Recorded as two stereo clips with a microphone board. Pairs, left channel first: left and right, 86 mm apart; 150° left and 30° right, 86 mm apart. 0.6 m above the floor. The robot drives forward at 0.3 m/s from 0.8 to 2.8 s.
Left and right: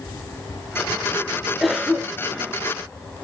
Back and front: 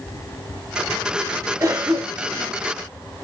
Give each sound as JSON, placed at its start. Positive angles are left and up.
{"t": 1.6, "sound": "a cough", "azimuth_deg": -5, "distance_m": 0.8}